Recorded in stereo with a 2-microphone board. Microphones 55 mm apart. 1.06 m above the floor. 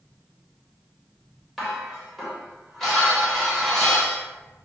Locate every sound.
1.6 s dishes clattering: centre (ahead or behind), 0.9 m